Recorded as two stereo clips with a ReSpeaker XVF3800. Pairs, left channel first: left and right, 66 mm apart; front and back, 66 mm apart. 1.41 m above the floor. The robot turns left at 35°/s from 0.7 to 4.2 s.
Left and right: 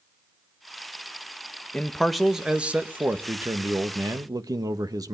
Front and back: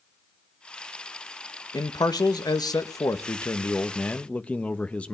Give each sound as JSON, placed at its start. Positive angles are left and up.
{"t": 1.7, "sound": "a man speaking", "azimuth_deg": 15, "distance_m": 1.4}